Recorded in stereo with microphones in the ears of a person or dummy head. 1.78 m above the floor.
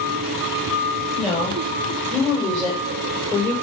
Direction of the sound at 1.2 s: 5° left (ahead or behind).